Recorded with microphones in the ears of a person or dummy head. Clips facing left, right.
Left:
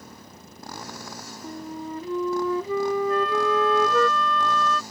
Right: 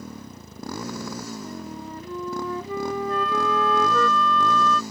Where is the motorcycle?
70° right (ahead or behind).